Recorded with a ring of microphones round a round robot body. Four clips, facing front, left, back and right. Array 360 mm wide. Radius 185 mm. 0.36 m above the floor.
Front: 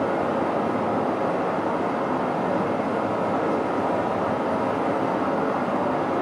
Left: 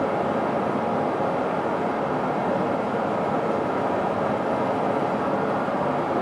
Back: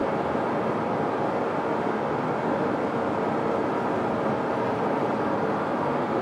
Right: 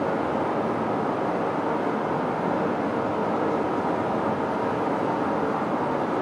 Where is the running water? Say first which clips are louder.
Left 1 dB, front 2 dB; 70° left, 1.9 m.